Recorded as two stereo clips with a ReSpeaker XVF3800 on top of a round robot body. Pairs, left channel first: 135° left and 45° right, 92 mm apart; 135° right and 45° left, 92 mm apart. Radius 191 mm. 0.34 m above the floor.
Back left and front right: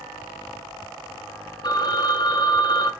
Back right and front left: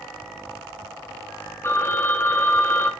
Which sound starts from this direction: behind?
A phone ringing, at 1.6 s.